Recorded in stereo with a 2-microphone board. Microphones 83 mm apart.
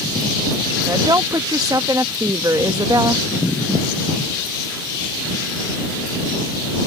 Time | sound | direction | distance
0.9 | a woman speaking | 45° right (ahead or behind) | ?